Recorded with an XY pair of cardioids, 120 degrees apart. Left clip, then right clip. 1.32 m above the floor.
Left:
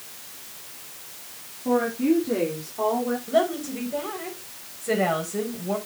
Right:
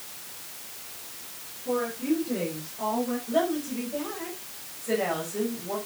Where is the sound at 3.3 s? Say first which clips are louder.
Left 4 dB; 35° left, 6 m.